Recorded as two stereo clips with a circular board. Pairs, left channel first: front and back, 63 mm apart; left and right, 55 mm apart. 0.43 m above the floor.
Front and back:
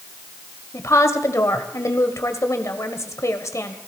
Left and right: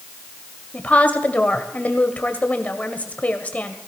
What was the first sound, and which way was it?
A woman speaking, 30° left.